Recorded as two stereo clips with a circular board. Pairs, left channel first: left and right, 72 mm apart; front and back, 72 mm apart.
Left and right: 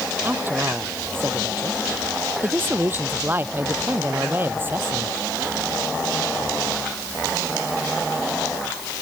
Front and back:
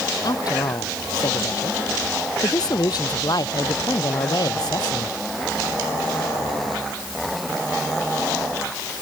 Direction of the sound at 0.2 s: 30° right.